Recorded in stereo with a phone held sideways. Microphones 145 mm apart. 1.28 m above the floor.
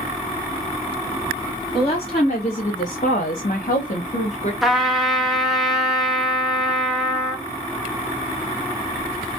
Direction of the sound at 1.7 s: 40° left (ahead or behind).